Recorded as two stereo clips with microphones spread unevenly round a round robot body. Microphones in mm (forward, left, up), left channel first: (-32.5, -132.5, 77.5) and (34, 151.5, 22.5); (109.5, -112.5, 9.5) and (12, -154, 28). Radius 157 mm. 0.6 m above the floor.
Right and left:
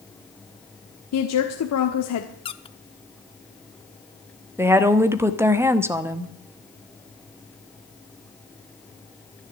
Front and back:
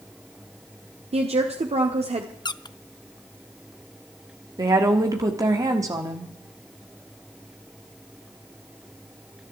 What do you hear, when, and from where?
1.1 s a woman speaking: 135° right, 1.4 m
2.5 s a squeak: 25° right, 0.6 m
4.6 s a woman speaking: 140° left, 1.2 m